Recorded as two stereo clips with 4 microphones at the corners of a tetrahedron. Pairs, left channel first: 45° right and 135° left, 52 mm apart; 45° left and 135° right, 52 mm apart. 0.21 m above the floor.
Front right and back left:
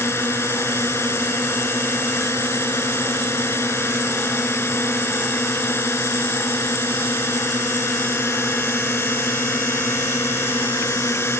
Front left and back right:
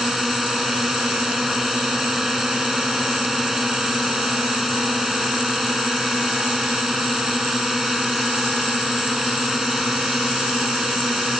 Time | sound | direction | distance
0.0 | a drone | 50° right | ?